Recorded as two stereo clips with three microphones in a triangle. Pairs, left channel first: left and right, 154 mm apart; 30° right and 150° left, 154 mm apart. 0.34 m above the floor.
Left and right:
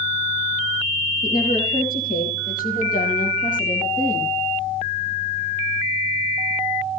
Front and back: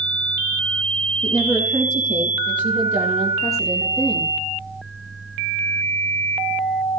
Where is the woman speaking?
80° left, 9 m; by 4.3 s 55° left, 8.5 m.